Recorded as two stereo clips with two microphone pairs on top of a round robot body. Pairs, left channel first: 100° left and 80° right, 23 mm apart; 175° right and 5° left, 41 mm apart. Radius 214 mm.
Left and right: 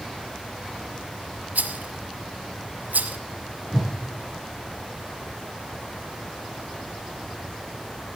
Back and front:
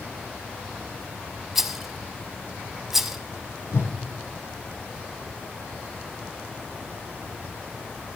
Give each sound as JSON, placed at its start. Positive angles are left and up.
{"t": 1.6, "sound": "a rattle", "azimuth_deg": -80, "distance_m": 0.9}
{"t": 3.7, "sound": "a whoosh", "azimuth_deg": -170, "distance_m": 3.5}